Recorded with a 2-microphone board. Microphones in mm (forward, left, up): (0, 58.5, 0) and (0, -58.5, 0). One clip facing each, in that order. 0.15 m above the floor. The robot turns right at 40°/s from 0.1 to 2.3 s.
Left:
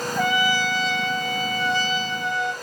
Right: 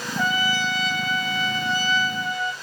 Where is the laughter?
I don't hear laughter.